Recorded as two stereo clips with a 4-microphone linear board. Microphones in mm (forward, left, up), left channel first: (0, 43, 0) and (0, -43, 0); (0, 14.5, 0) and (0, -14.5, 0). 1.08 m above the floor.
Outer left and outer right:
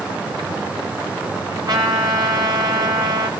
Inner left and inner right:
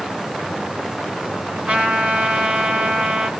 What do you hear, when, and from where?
1.7 s a trumpet: 55° right (ahead or behind), 1.4 m